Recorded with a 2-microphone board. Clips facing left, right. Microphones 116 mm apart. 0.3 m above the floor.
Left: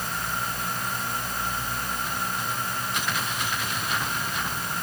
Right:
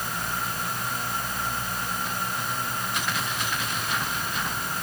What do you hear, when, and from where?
Only background noise.